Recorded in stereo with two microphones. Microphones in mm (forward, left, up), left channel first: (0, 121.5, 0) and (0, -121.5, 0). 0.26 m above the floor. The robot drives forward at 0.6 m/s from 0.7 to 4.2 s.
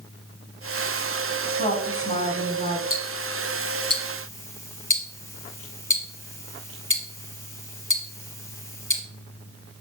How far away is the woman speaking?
About 2.5 m.